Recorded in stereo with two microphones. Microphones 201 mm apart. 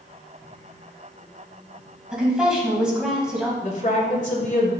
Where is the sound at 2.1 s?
5° right (ahead or behind), 2.5 m.